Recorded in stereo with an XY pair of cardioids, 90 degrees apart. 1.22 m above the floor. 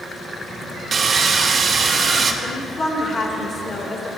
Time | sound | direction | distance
0.9 | sawing | 50° right | 0.7 m
2.4 | a woman speaking | 50° left | 1.5 m